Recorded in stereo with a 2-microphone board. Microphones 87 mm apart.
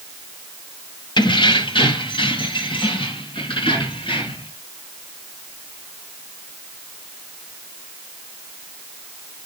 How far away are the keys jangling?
About 1.0 m.